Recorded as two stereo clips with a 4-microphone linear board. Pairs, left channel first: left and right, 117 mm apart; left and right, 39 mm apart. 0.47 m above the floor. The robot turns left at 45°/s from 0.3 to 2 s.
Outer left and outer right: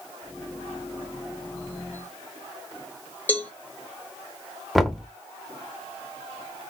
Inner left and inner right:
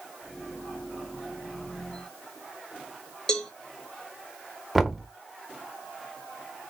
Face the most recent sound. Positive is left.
turn(degrees=0)  # may be behind; listen again after turning